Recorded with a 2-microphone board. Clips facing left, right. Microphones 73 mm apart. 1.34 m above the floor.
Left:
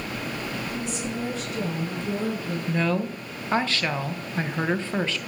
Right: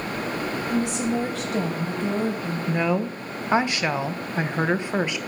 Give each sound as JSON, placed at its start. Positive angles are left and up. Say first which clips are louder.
{"t": 0.7, "sound": "a woman speaking", "louder": "right 7 dB", "side_deg": -80, "distance_m": 6.0}
{"t": 2.7, "sound": "a woman speaking", "louder": "right 2 dB", "side_deg": -15, "distance_m": 1.0}